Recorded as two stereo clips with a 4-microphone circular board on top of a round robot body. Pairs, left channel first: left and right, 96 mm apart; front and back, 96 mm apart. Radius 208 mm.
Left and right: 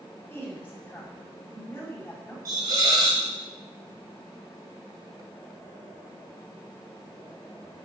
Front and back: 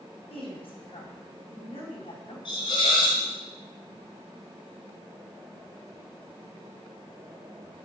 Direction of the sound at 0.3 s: 20° left.